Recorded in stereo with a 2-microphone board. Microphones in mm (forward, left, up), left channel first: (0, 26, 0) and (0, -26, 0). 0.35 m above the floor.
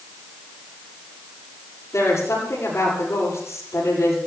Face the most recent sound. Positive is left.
turn(degrees=80)